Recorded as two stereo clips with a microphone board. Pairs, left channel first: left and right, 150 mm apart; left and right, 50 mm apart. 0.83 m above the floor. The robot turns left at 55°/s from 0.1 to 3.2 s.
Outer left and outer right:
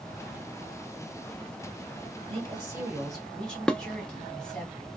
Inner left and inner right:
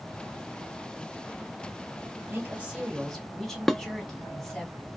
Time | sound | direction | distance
2.3 | a woman speaking | 135° right | 2.5 m
3.7 | dishes clattering | 5° left (ahead or behind) | 0.6 m